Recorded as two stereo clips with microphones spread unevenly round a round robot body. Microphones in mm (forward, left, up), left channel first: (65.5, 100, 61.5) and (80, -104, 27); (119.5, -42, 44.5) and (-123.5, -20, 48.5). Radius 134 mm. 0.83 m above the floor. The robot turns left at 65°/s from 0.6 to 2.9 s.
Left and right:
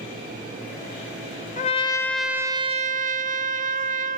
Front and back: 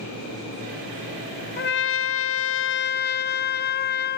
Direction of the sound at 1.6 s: 40° left.